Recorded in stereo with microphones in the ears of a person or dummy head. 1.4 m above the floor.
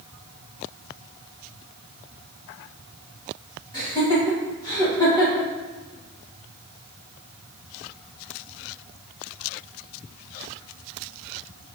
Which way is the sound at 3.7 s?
25° left (ahead or behind).